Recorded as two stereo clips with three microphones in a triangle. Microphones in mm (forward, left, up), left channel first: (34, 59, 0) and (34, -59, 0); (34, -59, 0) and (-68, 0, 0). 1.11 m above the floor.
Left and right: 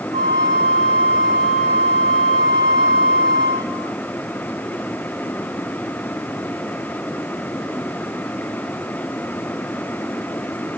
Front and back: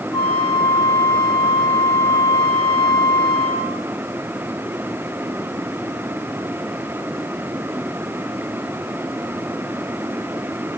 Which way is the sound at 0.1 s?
90° right.